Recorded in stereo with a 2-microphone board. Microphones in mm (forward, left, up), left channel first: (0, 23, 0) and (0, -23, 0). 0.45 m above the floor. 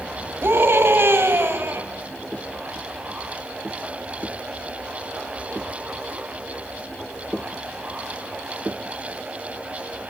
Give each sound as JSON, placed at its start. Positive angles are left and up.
{"t": 0.4, "sound": "a scream", "side_deg": -60, "distance_m": 3.0}